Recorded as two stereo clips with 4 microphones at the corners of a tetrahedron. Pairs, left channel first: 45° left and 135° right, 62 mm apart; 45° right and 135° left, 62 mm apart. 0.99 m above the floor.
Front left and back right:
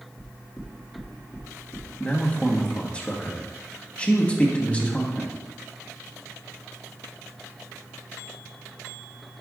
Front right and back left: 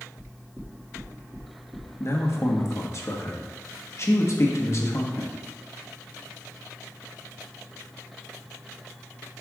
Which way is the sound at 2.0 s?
20° right.